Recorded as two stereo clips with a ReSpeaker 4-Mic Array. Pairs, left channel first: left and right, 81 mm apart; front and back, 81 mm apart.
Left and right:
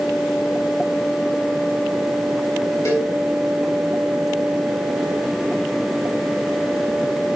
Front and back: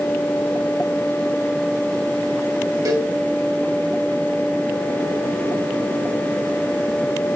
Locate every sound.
2.9 s a cowbell: 140° left, 3.5 m